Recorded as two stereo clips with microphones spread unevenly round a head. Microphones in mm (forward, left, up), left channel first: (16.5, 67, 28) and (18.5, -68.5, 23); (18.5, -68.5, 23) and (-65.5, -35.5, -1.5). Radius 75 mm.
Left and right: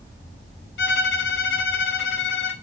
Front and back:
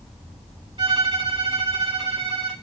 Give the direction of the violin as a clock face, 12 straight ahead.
9 o'clock.